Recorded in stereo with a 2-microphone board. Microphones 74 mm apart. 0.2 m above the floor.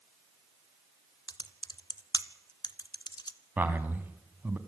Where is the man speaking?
25° right (ahead or behind), 1.8 m.